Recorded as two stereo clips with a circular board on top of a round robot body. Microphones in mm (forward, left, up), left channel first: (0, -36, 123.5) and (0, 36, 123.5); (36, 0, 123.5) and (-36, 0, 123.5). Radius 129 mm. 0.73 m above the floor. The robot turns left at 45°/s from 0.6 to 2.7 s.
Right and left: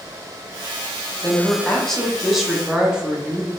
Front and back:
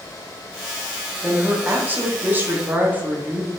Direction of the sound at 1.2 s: 135° right.